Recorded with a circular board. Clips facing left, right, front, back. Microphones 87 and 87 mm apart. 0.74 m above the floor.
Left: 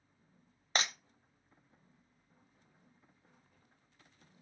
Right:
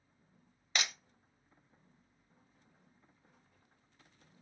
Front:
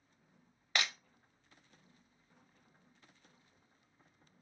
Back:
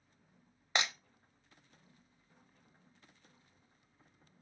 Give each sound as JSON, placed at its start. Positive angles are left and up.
{"t": 0.8, "sound": "breaking glass", "azimuth_deg": 125, "distance_m": 0.6}